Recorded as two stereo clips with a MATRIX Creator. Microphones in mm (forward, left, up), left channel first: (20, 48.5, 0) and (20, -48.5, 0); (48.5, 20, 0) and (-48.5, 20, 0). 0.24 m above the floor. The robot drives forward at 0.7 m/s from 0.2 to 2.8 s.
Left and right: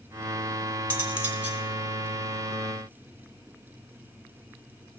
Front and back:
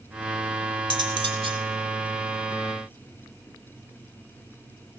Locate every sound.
0.9 s cutlery clinking: 160° right, 1.7 m; by 1.6 s 165° right, 2 m